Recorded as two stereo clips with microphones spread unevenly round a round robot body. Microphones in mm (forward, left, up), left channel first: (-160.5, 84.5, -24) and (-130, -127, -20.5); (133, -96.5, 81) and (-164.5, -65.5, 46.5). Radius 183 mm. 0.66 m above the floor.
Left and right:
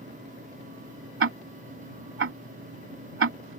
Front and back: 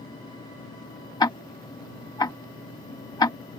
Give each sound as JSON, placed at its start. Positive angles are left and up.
{"t": 1.2, "sound": "ticking", "azimuth_deg": -80}